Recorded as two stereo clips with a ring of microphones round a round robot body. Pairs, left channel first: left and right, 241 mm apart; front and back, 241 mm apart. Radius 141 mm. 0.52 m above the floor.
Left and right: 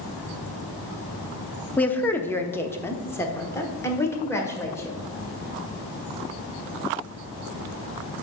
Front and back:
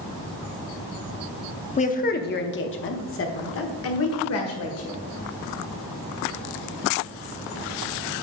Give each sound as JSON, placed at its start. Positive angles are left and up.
{"t": 1.8, "sound": "a woman speaking", "azimuth_deg": 15, "distance_m": 0.8}